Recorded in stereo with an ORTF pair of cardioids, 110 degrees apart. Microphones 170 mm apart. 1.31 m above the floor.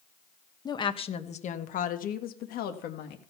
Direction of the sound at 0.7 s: 25° left.